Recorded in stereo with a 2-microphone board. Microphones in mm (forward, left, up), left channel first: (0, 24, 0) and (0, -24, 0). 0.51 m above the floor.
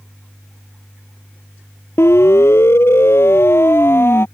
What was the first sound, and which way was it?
A siren, 60° left (ahead or behind).